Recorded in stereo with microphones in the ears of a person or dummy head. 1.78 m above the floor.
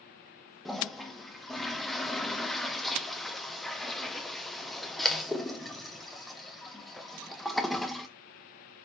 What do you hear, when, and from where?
0.7 s a toilet flushing: centre (ahead or behind), 0.8 m